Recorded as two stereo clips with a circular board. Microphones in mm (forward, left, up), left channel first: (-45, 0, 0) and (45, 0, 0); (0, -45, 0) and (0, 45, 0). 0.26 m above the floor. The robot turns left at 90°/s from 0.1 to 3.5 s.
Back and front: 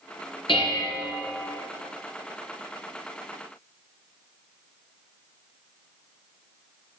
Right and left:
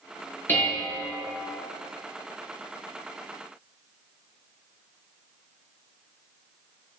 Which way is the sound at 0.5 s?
155° right.